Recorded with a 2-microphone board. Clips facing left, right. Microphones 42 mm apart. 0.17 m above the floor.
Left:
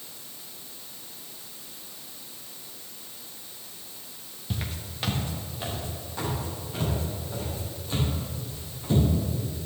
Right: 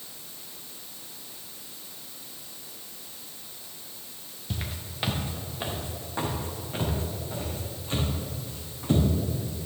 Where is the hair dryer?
I don't hear a hair dryer.